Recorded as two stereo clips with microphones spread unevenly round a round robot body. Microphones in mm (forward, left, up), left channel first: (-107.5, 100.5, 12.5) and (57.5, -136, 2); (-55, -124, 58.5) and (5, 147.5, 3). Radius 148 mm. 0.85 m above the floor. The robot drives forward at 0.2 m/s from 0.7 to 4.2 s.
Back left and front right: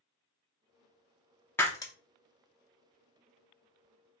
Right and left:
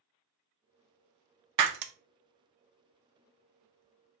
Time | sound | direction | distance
1.6 | breaking glass | 45° left | 0.5 m